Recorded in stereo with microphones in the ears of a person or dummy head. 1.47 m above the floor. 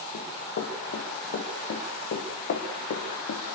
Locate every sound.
0.1 s running footsteps: 60° left (ahead or behind), 6.5 m; by 3.4 s 70° left (ahead or behind), 5.5 m